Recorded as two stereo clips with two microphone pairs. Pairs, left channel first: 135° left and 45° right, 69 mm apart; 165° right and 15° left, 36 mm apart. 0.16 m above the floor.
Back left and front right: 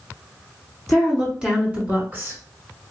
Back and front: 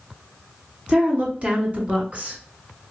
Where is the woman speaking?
40° left, 1.5 m; by 2.4 s 15° right, 1.7 m.